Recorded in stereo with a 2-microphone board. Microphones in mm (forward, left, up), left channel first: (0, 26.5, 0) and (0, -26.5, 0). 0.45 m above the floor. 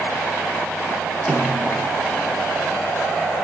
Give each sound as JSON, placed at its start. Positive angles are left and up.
{"t": 1.3, "sound": "a snare drum", "side_deg": 5, "distance_m": 5.0}